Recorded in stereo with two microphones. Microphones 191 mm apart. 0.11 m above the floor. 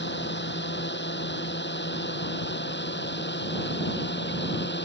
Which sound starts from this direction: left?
A drone, at 0.0 s.